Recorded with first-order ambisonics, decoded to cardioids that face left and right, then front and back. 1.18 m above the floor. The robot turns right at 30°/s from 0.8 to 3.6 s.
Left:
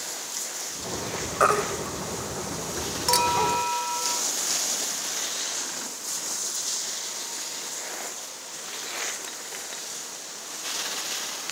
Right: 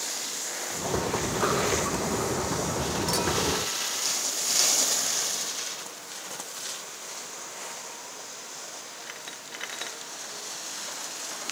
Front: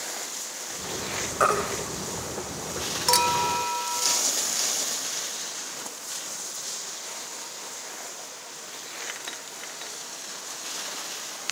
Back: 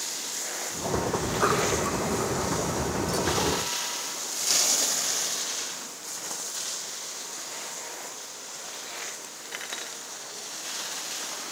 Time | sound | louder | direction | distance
1.4 | a baby crying | left 5 dB, front 2 dB | 50° left | 4 m
3.1 | a clink | left 7 dB, front 7 dB | 25° left | 1.0 m